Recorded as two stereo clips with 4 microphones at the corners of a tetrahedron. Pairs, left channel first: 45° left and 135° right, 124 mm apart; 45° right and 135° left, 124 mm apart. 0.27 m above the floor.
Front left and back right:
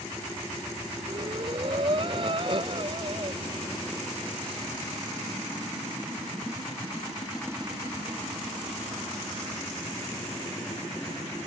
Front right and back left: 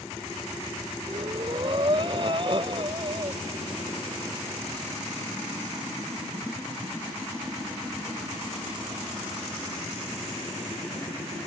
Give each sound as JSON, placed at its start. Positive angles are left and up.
{"t": 1.1, "sound": "breathing", "azimuth_deg": 180}